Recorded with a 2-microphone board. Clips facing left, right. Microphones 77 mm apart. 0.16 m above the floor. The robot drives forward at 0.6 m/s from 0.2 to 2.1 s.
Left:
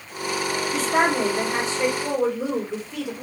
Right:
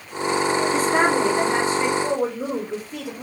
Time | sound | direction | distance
0.7 | a woman speaking | 30° right (ahead or behind) | 2.0 m